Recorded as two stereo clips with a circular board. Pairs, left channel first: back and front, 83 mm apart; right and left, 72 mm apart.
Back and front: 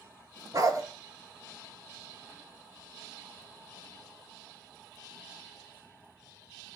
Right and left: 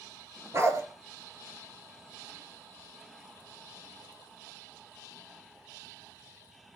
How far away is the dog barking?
About 2.0 m.